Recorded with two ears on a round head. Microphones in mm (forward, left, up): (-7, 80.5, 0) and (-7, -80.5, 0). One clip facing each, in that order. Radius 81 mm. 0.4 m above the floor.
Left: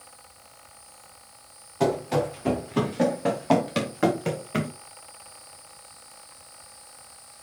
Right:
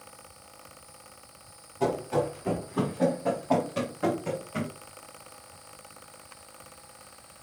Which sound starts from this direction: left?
Running footsteps, at 1.8 s.